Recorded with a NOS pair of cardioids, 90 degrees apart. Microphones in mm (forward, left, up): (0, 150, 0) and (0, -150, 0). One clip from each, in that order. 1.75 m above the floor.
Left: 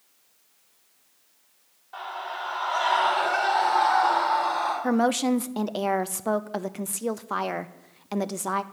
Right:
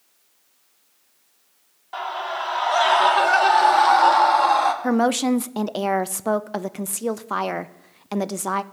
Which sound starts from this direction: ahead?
A woman speaking, at 4.8 s.